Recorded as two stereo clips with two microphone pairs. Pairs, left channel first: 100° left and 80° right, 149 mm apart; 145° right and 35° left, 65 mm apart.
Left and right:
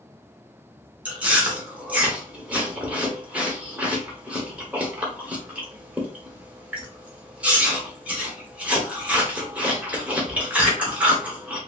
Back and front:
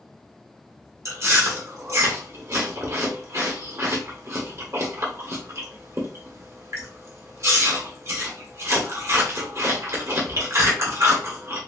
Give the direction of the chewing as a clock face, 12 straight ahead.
12 o'clock.